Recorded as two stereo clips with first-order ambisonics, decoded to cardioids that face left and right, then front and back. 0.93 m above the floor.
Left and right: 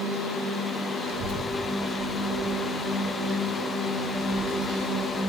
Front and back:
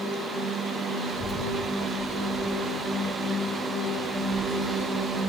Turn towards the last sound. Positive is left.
turn(degrees=-90)